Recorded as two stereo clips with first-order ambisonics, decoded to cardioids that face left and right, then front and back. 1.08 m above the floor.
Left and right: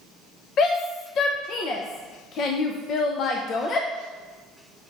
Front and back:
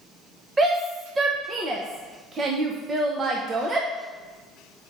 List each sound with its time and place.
0.6 s a shout: 120° left, 0.6 m